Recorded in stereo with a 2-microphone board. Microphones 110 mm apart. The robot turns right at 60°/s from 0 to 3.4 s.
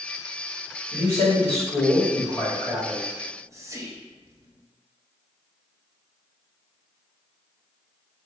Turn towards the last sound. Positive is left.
turn(degrees=-25)  # may be behind; listen again after turning